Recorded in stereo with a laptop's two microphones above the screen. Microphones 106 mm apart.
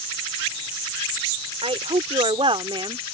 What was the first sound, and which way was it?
A woman speaking, 70° right (ahead or behind).